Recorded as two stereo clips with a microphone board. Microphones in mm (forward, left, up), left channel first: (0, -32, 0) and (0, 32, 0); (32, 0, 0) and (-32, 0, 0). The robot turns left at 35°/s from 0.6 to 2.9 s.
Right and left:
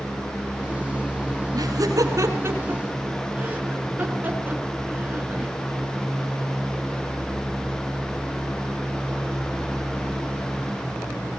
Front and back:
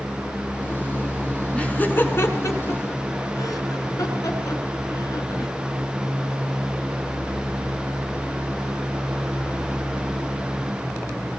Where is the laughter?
70° left, 5.5 m; by 5.5 s 25° left, 5.5 m.